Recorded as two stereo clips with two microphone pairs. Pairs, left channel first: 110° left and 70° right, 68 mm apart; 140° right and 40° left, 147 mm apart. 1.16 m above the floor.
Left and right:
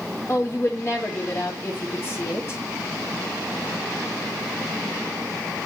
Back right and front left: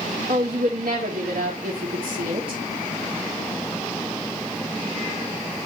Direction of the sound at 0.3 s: 55° left.